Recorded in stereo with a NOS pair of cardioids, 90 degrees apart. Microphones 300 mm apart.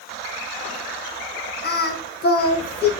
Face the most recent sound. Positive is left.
turn(degrees=35)